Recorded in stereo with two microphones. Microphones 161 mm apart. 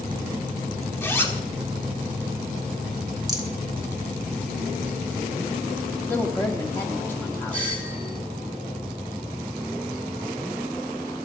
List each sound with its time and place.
1.0 s a zipper: 15° left (ahead or behind), 1.2 m
3.3 s a rattle: 25° right (ahead or behind), 1.3 m
6.1 s a woman speaking: 15° left (ahead or behind), 1.3 m
7.5 s a doorbell: 50° left (ahead or behind), 2.5 m